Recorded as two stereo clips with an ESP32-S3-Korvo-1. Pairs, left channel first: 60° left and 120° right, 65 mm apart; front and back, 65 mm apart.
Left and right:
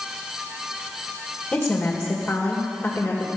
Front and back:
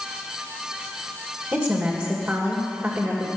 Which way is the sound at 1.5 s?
130° left.